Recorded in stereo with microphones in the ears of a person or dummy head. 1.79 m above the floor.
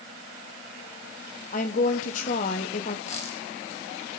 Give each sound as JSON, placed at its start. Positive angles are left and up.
{"t": 1.5, "sound": "a woman speaking", "side_deg": 45, "distance_m": 1.4}
{"t": 3.1, "sound": "a dropped coin", "side_deg": 40, "distance_m": 4.5}